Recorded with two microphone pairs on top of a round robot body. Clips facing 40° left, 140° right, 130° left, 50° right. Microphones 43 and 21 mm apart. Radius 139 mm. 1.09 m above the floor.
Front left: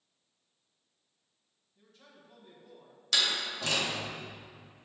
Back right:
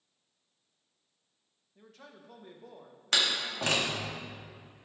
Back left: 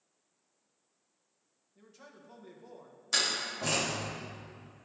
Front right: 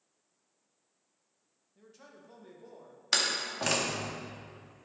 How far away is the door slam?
About 2 m.